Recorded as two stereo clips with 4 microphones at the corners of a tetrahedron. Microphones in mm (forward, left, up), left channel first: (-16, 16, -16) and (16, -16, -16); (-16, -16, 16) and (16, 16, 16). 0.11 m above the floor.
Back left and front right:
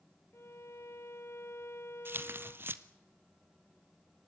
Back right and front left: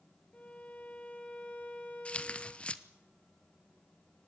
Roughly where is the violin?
Behind.